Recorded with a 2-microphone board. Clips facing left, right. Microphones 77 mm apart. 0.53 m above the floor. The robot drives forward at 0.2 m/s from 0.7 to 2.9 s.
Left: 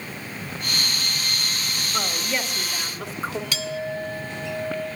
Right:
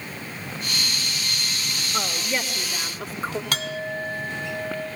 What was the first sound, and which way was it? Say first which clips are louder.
A woman speaking: even; 5° right (ahead or behind).